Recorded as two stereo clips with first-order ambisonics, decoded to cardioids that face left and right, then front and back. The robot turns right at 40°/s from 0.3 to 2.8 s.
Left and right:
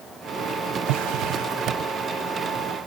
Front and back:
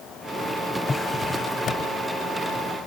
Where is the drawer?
85° right; by 1.9 s 45° right.